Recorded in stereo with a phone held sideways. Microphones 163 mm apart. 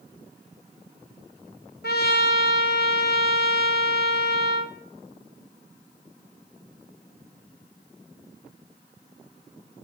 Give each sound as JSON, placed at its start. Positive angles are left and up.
{"t": 1.8, "sound": "a trumpet", "side_deg": 70, "distance_m": 1.2}